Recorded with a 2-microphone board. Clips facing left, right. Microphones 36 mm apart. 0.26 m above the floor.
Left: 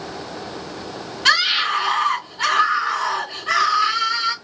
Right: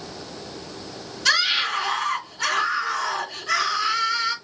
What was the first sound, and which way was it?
A scream, 50° left (ahead or behind).